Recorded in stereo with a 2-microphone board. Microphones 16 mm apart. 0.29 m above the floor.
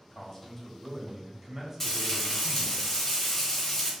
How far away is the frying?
About 1.3 m.